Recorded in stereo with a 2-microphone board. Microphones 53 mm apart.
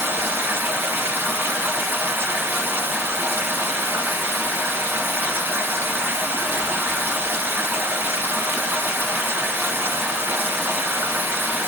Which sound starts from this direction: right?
Running water, at 0.0 s.